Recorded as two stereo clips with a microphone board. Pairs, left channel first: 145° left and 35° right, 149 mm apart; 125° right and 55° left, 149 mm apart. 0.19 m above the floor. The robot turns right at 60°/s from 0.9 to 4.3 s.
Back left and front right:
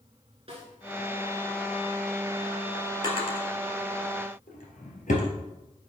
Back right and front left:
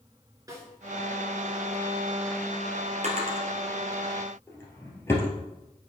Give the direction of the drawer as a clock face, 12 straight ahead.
9 o'clock.